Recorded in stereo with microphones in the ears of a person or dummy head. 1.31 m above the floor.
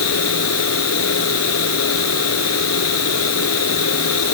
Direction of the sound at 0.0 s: 85° left.